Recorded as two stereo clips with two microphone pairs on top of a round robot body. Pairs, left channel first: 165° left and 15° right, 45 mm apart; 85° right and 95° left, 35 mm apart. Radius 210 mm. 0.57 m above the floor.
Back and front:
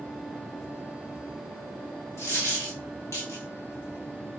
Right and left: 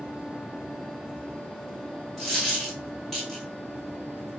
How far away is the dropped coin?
About 1.3 m.